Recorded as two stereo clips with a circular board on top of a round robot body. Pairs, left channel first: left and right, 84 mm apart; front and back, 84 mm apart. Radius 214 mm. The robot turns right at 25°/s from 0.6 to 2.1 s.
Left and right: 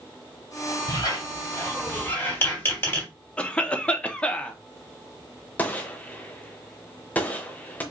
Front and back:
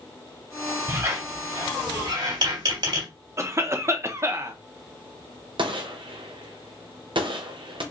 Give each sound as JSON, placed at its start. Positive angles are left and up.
{"t": 0.9, "sound": "a squeak", "azimuth_deg": 125, "distance_m": 2.5}
{"t": 3.4, "sound": "a cough", "azimuth_deg": 155, "distance_m": 1.0}
{"t": 5.6, "sound": "a gunshot", "azimuth_deg": 160, "distance_m": 0.9}